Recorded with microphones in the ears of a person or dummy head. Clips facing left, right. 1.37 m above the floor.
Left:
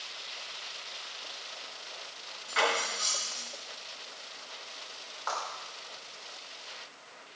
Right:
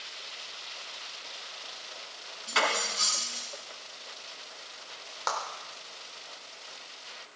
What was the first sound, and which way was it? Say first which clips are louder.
Cutlery clinking: even; 60° right (ahead or behind).